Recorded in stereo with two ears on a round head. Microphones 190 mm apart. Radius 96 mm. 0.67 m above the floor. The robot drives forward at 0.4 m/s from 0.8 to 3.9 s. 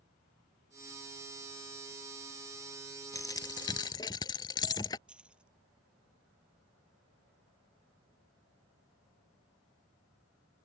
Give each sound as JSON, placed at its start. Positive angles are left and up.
{"t": 3.1, "sound": "a dropped coin", "side_deg": 15}
{"t": 5.1, "sound": "keys jangling", "side_deg": -5}